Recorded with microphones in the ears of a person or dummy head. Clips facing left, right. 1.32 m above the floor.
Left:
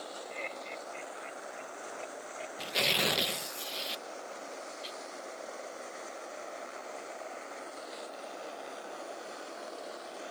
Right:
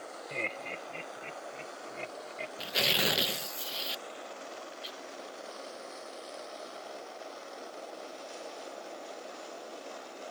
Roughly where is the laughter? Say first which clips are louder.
Right 6 dB; right.